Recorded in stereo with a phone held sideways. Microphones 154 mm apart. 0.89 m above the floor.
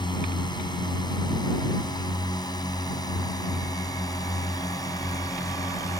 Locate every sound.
0.0 s a drone: 25° left (ahead or behind); by 6.0 s 20° left (ahead or behind)